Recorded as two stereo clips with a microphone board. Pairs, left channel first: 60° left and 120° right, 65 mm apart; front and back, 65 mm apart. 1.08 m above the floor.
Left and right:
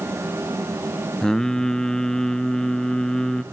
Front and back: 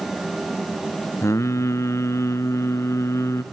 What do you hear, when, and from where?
1.2 s singing: 20° right, 0.8 m